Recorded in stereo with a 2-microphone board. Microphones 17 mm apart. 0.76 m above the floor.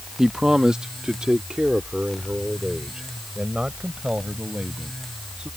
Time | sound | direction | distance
0.2 | a man speaking | 30° right (ahead or behind) | ?